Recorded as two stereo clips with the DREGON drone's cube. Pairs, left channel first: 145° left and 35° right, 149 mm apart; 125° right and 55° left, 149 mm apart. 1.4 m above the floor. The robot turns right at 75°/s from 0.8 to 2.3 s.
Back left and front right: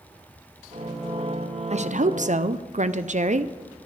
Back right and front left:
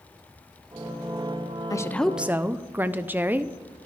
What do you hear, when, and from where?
1.7 s a woman speaking: 65° right, 0.5 m; by 3.5 s 20° right, 0.5 m